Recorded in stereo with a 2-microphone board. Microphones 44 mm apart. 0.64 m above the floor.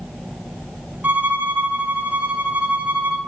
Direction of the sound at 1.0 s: 45° right (ahead or behind).